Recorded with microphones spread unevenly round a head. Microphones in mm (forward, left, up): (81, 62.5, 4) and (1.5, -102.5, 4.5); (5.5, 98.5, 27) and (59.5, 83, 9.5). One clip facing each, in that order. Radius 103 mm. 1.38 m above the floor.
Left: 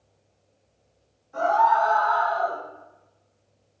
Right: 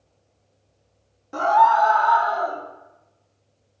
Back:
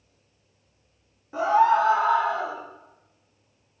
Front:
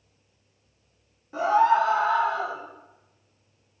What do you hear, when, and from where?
1.3 s a scream: 110° right, 1.8 m; by 2.6 s 135° right, 2.5 m